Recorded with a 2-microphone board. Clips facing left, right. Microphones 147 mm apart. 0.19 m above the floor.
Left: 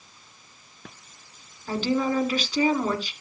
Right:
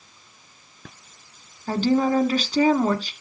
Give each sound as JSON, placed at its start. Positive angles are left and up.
{"t": 1.7, "sound": "a woman speaking", "side_deg": -40, "distance_m": 1.6}